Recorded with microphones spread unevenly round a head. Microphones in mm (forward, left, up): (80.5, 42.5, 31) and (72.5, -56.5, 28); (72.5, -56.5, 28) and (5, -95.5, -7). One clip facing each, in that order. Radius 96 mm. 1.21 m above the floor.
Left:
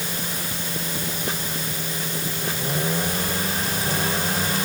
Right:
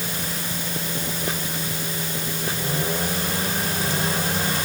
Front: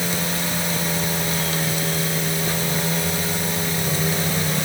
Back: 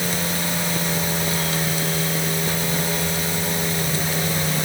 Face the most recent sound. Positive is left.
No sound to turn to.